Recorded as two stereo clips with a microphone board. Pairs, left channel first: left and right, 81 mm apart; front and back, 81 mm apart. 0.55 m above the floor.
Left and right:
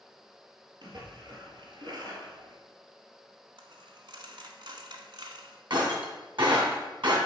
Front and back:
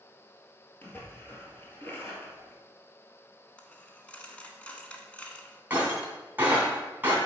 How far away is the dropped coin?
About 0.9 m.